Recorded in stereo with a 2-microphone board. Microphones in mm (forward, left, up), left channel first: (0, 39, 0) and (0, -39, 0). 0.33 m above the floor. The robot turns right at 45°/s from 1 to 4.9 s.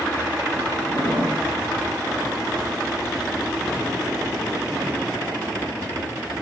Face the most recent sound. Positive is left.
turn(degrees=0)  # may be behind; listen again after turning